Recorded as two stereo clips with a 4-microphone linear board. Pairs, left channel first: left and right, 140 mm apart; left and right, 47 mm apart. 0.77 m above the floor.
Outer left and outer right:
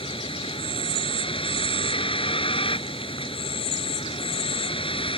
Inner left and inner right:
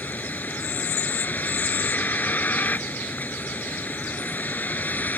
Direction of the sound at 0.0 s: 40° left (ahead or behind).